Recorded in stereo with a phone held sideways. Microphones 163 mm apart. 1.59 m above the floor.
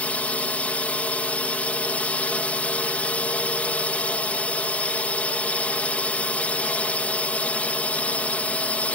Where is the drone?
10° left (ahead or behind).